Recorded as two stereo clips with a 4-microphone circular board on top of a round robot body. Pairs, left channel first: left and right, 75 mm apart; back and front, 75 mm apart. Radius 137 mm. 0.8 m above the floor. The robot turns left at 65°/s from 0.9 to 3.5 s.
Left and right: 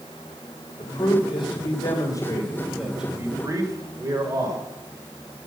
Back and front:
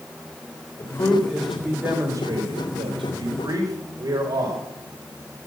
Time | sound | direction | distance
0.8 | a man speaking | 125° left | 3 m